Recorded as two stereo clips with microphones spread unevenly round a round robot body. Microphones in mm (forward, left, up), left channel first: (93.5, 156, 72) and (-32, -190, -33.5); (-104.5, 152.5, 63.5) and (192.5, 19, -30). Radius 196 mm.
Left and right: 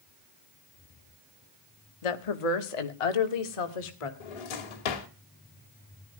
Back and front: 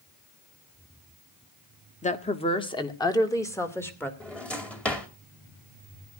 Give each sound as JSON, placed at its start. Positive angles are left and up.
{"t": 2.0, "sound": "a woman speaking", "azimuth_deg": 80, "distance_m": 1.4}
{"t": 4.2, "sound": "a drawer", "azimuth_deg": 70, "distance_m": 2.5}